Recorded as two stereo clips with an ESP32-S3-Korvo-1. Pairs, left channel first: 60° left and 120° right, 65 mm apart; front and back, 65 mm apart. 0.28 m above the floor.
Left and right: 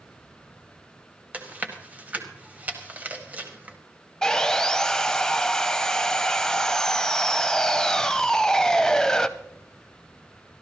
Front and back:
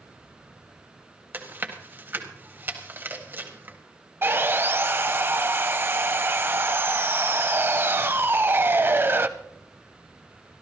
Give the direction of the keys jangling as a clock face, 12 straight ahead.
I don't hear keys jangling.